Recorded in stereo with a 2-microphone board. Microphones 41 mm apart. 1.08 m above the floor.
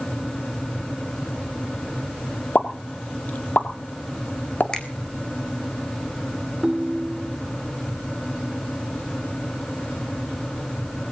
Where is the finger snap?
25° left (ahead or behind), 4 m.